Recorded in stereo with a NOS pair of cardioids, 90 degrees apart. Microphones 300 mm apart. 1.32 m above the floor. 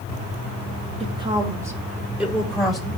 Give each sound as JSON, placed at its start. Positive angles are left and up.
{"t": 1.0, "sound": "a woman speaking", "azimuth_deg": -20, "distance_m": 2.5}